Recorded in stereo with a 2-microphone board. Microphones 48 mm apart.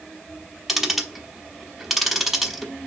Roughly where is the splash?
No splash in this recording.